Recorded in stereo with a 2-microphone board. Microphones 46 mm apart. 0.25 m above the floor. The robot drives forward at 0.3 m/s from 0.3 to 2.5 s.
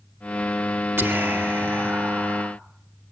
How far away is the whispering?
About 2.5 m.